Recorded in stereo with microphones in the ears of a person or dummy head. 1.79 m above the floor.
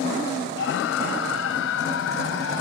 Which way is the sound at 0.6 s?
70° left (ahead or behind).